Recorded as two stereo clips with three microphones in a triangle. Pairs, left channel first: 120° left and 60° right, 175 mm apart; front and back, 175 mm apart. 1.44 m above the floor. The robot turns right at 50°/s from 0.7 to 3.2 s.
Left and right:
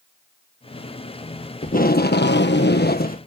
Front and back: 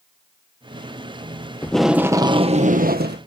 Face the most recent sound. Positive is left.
turn(degrees=160)